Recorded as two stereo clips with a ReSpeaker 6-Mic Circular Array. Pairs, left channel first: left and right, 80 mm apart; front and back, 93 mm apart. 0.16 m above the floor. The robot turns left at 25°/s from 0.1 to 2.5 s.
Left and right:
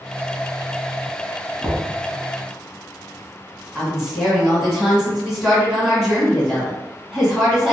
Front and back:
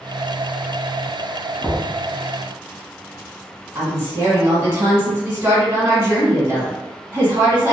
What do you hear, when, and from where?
1.6 s knocking: 40° right, 0.8 m; by 1.9 s 45° right, 0.8 m
3.8 s a woman speaking: 160° right, 1.8 m